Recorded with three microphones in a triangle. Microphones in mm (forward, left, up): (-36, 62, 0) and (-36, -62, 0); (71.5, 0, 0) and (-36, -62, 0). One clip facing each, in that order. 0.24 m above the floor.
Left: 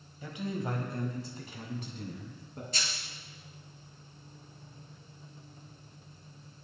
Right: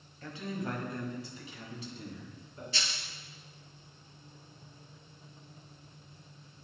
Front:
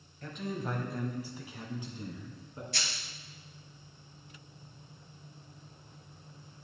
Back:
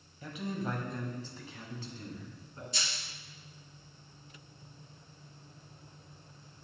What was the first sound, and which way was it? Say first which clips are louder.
A man speaking: left 2 dB, even; 145° left.